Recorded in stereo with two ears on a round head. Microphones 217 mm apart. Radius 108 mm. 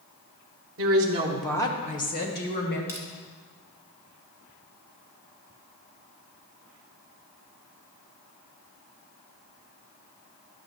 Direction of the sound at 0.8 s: 50° right (ahead or behind).